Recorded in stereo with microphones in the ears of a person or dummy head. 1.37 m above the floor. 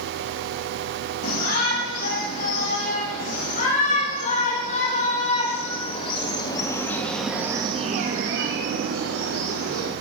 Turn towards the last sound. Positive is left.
turn(degrees=-85)